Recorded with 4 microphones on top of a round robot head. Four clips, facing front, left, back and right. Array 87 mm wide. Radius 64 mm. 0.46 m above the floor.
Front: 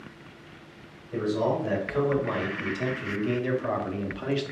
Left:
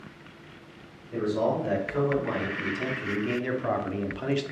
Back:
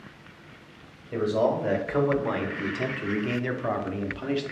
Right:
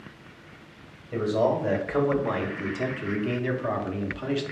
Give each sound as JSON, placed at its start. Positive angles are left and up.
{"t": 1.1, "sound": "a man speaking", "azimuth_deg": -155, "distance_m": 1.8}